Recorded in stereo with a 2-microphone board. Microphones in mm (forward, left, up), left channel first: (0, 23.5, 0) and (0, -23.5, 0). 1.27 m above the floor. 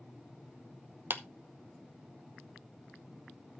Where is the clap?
50° right (ahead or behind), 0.8 m.